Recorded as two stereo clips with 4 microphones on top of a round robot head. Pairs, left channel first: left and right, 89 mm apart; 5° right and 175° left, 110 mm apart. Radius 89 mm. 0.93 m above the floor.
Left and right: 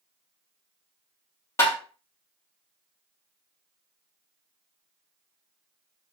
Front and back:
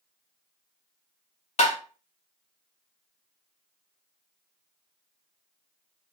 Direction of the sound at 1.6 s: 20° left.